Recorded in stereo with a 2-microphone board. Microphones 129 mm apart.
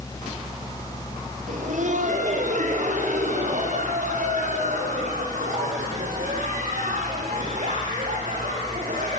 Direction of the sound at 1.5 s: 70° right (ahead or behind).